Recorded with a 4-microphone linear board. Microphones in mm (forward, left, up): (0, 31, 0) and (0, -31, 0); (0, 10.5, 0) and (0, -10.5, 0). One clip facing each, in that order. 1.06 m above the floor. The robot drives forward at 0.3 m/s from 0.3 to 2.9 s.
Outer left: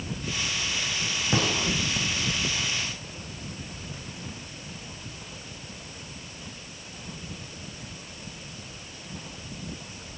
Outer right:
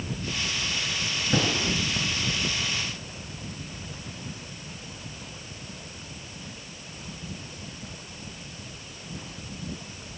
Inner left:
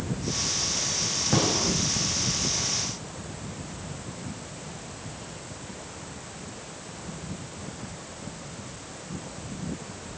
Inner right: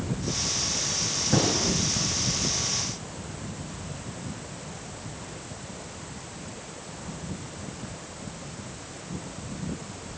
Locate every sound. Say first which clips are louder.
1.3 s a gunshot: outer right 1 dB, even; 40° left (ahead or behind), 5 m